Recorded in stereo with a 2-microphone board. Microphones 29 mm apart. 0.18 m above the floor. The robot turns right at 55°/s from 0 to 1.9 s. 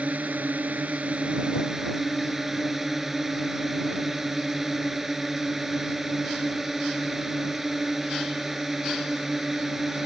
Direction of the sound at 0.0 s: 115° right.